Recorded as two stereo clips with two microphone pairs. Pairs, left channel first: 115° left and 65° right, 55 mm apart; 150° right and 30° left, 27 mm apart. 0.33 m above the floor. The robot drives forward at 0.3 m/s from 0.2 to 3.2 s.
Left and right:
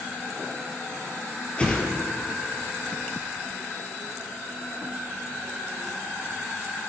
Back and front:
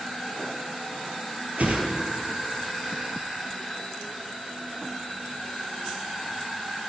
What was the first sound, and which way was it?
A whoosh, 45° left.